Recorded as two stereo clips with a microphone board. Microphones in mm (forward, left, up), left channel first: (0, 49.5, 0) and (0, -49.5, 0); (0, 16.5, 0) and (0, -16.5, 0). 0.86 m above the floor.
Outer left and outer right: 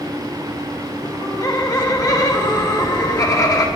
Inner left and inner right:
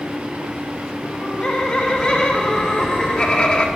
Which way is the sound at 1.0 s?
40° left (ahead or behind).